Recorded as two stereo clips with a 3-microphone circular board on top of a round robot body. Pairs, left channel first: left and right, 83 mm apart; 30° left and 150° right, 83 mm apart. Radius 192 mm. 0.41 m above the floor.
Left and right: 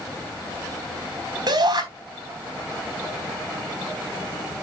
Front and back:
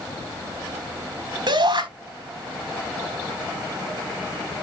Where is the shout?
125° right, 4.5 m.